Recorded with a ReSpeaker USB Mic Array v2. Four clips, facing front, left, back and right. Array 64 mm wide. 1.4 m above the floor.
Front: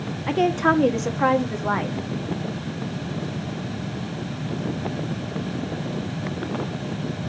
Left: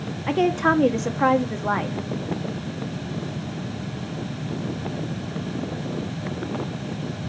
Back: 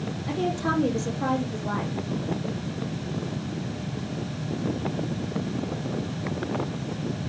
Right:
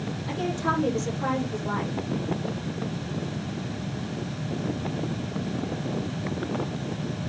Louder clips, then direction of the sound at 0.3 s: Left 8 dB, front 8 dB; 50° left.